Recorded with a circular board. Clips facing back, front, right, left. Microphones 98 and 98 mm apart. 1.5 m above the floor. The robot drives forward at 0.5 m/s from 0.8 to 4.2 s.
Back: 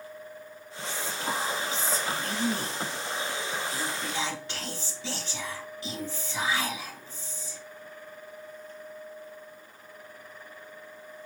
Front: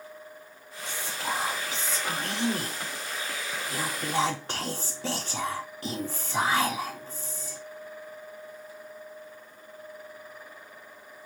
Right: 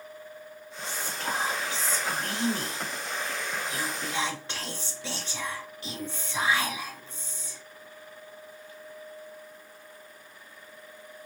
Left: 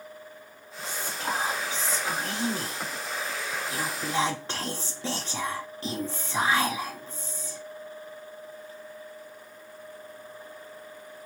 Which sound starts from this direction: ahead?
Whispering, at 0.8 s.